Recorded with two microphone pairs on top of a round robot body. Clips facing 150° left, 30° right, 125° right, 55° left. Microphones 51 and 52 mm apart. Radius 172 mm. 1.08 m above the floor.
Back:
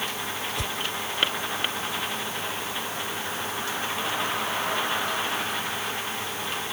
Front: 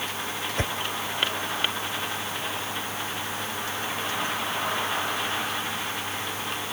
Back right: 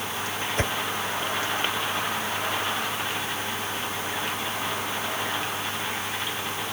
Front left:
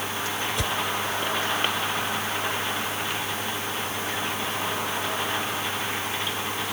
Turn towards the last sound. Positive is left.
turn(degrees=-75)